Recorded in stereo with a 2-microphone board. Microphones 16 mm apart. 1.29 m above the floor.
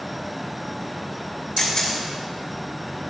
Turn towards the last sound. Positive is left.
turn(degrees=45)  # may be behind; listen again after turning